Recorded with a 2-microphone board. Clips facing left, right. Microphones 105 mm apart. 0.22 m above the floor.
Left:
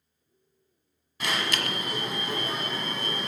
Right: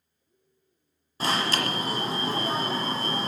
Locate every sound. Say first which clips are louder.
1.2 s an alarm: right 3 dB; 35° right (ahead or behind), 1.5 m